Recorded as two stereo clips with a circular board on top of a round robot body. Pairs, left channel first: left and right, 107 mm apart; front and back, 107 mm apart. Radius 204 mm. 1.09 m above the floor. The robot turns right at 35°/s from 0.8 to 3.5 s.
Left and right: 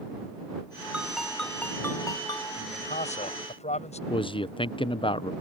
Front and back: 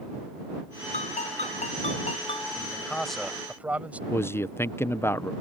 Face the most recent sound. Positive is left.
turn(degrees=65)